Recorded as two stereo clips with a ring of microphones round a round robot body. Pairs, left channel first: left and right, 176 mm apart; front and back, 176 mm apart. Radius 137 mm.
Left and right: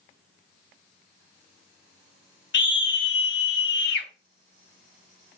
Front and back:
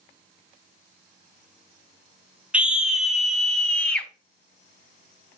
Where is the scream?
95° left, 3.5 m; by 4.1 s 85° left, 4 m.